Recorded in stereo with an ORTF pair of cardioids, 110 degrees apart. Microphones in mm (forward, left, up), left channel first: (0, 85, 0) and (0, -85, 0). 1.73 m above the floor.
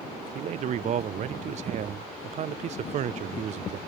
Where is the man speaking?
45° right, 0.5 m.